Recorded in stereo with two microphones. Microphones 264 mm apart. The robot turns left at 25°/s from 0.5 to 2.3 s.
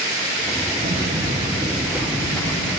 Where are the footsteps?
40° right (ahead or behind), 6 m; by 2.8 s 10° left (ahead or behind), 8 m.